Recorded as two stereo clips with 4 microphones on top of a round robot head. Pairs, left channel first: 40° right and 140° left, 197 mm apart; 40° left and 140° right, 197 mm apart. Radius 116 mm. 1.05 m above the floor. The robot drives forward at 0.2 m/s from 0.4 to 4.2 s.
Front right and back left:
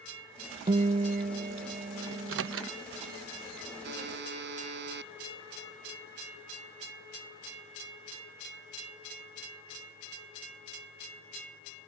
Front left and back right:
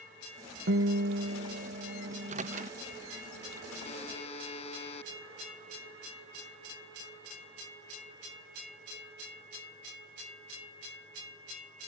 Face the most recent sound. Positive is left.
turn(degrees=105)